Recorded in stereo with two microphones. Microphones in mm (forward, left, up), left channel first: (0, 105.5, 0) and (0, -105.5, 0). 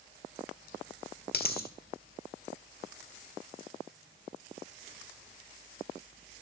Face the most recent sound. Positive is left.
turn(degrees=50)  # may be behind; listen again after turning